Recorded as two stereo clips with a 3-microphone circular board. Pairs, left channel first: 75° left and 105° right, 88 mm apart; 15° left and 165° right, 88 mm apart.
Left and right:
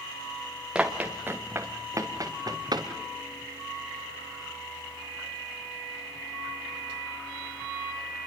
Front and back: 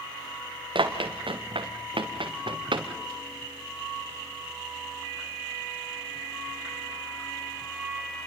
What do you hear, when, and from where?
0.8 s running footsteps: 175° left, 2.5 m; by 2.9 s 140° right, 3.5 m